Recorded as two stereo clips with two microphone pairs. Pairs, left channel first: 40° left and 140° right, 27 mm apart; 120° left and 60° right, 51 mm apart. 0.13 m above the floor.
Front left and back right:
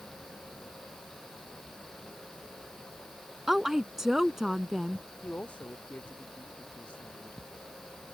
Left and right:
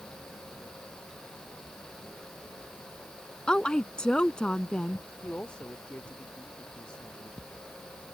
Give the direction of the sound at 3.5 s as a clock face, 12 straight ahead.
7 o'clock.